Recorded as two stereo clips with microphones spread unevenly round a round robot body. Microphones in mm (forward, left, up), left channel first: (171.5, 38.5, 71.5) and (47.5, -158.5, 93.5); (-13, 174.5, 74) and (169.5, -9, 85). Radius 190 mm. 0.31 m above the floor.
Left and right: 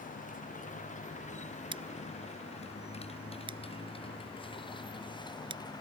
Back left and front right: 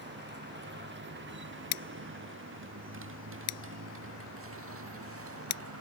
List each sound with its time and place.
0.0 s a motorcycle: straight ahead; by 5.8 s 15° right
1.7 s scissors: 165° left